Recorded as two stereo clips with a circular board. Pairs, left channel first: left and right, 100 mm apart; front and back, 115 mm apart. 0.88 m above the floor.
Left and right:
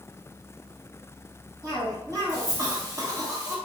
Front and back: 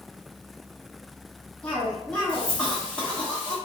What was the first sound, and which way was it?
A cough, 70° right.